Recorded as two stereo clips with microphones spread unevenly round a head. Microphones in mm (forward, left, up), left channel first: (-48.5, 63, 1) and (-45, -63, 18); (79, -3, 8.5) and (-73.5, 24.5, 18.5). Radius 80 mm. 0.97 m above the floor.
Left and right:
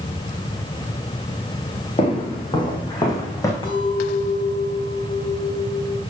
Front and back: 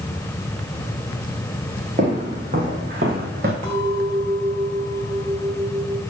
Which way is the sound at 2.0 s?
135° left.